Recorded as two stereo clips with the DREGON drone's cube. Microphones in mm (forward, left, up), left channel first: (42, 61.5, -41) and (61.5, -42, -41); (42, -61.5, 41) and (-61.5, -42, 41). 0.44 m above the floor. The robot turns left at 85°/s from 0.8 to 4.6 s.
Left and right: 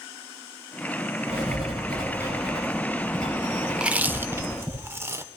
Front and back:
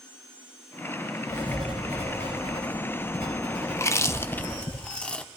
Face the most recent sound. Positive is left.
turn(degrees=-80)